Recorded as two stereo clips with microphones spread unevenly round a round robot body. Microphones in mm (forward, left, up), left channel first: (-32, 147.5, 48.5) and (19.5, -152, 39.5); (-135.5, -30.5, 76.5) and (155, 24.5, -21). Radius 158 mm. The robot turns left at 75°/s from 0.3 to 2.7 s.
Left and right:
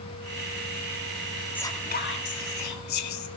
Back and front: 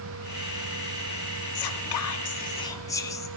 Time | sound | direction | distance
1.6 | whispering | 175° right | 1.6 m